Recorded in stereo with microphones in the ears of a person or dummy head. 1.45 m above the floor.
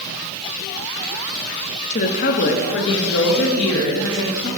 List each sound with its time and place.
1.9 s a woman speaking: 35° left (ahead or behind), 0.7 m; by 4.5 s 75° left (ahead or behind), 1.8 m